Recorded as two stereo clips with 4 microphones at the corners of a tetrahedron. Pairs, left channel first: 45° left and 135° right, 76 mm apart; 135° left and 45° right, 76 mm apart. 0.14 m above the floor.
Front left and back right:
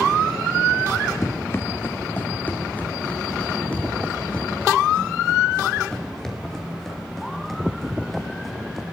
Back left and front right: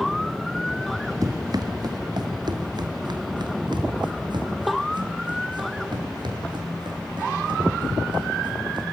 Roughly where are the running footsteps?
Ahead.